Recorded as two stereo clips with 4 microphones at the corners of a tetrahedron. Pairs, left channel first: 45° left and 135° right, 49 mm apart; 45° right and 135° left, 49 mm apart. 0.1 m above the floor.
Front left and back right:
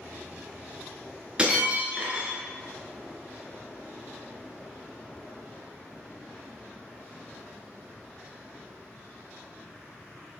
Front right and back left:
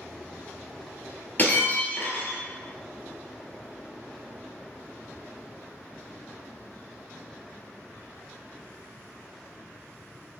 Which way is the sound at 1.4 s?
75° right.